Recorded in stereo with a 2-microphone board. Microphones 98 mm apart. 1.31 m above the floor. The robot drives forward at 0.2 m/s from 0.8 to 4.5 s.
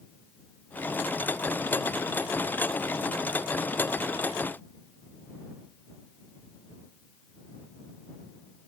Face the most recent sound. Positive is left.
No sound to turn to.